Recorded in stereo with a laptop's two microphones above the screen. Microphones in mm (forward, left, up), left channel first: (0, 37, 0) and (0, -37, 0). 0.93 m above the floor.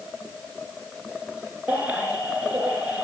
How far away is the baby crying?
About 4.5 m.